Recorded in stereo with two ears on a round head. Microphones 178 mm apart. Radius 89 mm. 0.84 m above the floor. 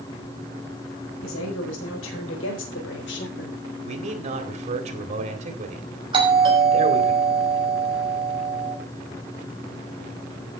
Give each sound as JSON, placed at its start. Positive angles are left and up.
{"t": 1.2, "sound": "a woman speaking", "side_deg": 80, "distance_m": 5.0}
{"t": 3.9, "sound": "a man speaking", "side_deg": -40, "distance_m": 2.5}
{"t": 6.1, "sound": "a doorbell", "side_deg": -25, "distance_m": 5.5}